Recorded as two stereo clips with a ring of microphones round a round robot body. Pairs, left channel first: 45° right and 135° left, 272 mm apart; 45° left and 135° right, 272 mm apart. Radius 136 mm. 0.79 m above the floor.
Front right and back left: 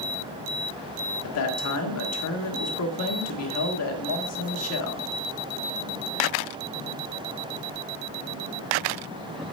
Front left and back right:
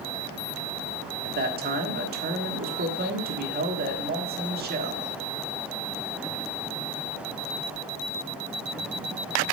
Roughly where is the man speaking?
Right.